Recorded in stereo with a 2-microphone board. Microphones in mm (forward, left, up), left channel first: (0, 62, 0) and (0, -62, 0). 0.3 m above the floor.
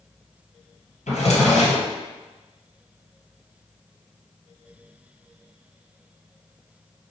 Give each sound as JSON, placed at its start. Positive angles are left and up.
{"t": 1.1, "sound": "a drawer", "side_deg": 85, "distance_m": 1.6}